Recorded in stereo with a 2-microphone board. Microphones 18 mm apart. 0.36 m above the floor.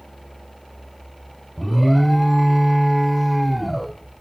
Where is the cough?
I don't hear a cough.